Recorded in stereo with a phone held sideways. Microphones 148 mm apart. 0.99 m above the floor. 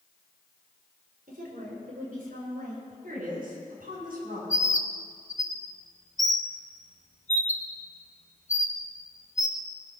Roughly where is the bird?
Left.